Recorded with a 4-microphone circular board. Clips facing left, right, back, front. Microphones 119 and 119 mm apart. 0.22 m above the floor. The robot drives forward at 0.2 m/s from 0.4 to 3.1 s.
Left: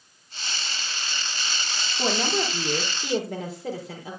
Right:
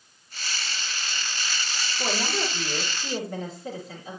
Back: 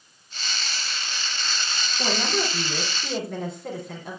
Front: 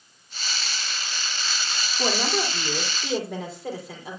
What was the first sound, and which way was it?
A woman speaking, 85° left.